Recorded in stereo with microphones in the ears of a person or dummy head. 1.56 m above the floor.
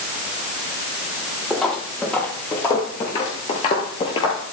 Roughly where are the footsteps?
Centre.